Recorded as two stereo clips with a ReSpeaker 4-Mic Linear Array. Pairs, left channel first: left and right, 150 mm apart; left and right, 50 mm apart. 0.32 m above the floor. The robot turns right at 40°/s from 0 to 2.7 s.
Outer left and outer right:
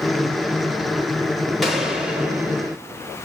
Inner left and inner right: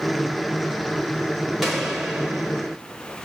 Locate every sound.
1.6 s a gunshot: centre (ahead or behind), 0.9 m; by 2.8 s 15° right (ahead or behind), 0.9 m